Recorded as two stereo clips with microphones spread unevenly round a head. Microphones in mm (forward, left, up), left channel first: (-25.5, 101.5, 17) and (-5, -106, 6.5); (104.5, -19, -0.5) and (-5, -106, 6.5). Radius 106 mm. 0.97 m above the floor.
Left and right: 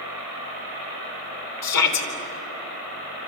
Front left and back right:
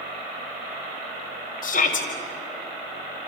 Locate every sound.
1.6 s a shout: 90° left, 3.5 m